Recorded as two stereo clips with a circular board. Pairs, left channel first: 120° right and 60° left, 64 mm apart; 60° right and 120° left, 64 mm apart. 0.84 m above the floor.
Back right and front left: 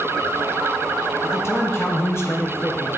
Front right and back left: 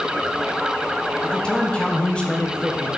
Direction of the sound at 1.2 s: 120° right.